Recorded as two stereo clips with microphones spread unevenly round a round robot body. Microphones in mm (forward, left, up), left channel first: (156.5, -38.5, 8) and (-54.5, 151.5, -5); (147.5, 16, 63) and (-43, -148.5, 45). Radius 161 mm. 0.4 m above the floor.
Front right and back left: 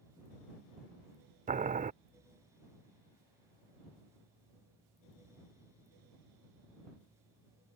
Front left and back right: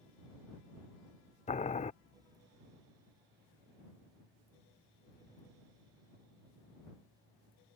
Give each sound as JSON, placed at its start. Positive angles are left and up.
{"t": 1.5, "sound": "boiling", "azimuth_deg": 95}